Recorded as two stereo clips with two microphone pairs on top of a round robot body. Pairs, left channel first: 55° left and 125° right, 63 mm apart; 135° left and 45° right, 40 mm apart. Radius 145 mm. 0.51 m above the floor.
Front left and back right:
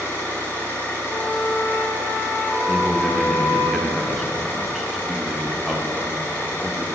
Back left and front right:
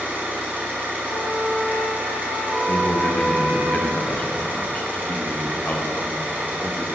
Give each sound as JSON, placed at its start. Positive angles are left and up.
{"t": 0.0, "sound": "an engine running", "azimuth_deg": -5, "distance_m": 1.7}
{"t": 1.1, "sound": "a flute", "azimuth_deg": 145, "distance_m": 1.5}
{"t": 2.7, "sound": "a man speaking", "azimuth_deg": 145, "distance_m": 0.7}